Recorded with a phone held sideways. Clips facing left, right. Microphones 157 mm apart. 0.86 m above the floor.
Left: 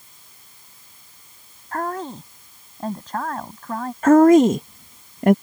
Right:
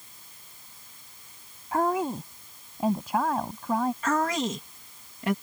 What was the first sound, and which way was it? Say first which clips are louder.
A woman speaking: right 2 dB; 10° right (ahead or behind).